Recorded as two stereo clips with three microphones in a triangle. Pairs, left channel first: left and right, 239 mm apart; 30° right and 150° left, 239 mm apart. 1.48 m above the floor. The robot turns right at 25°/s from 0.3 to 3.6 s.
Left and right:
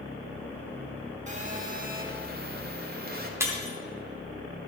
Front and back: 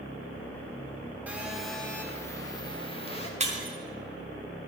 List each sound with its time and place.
1.3 s a phone buzzing: 130° right, 1.3 m; by 3.3 s 80° right, 1.3 m
3.4 s breaking glass: 165° right, 1.5 m; by 3.8 s 160° right, 1.5 m